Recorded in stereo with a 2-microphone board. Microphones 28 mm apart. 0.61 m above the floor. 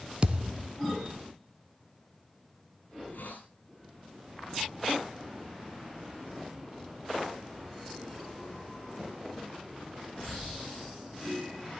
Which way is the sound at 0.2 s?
40° right (ahead or behind).